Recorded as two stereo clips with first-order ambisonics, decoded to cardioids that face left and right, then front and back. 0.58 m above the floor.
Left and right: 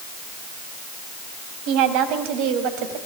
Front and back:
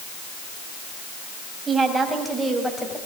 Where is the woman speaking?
105° right, 4.5 m; by 3.0 s 85° right, 4 m.